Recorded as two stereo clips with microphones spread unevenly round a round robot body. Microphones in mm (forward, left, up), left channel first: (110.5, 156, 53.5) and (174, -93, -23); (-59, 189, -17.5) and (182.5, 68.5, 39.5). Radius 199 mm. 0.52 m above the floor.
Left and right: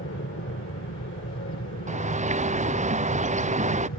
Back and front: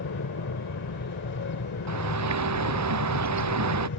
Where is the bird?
10° right.